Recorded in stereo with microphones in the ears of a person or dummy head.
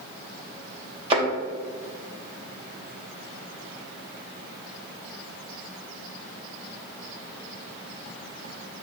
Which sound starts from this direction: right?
A thud, at 1.1 s.